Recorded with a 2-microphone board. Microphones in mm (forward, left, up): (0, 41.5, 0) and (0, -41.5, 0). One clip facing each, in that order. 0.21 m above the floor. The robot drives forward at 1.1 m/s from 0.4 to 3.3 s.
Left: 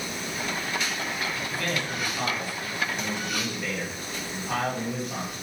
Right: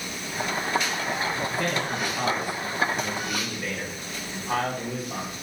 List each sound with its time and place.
1.5 s a man speaking: 20° right (ahead or behind), 1.5 m; by 5.3 s 10° right (ahead or behind), 3 m